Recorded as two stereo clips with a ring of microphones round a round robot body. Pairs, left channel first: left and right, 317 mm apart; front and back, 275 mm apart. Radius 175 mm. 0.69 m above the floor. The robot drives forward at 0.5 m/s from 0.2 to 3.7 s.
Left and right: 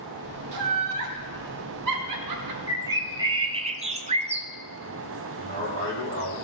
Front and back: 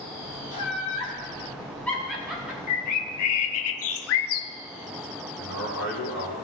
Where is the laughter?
65° right, 2 m; by 2.6 s 95° right, 2.0 m.